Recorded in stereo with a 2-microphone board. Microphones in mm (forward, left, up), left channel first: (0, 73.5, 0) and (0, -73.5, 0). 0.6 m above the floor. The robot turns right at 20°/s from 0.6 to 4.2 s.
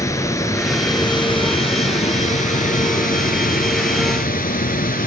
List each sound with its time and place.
0.0 s running water: 20° left, 2 m; by 5.1 s 95° left, 2 m